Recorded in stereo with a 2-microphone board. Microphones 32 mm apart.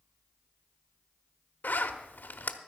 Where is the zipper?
75° left (ahead or behind), 0.9 m.